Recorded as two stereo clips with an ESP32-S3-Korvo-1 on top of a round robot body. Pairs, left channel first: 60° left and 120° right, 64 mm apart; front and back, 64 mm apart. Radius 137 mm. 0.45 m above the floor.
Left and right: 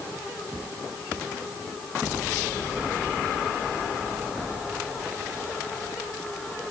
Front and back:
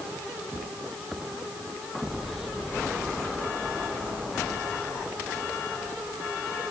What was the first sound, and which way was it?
Only background noise.